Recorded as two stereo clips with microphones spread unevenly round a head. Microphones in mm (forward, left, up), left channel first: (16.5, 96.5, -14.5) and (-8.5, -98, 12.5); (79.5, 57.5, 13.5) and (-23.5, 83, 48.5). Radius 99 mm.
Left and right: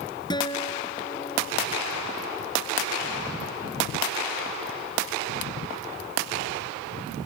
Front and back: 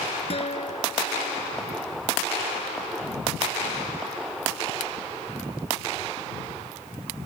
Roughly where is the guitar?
Ahead.